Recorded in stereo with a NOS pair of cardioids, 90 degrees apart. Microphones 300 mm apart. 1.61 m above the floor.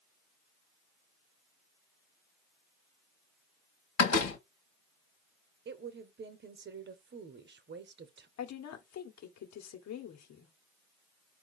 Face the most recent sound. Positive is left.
turn(degrees=65)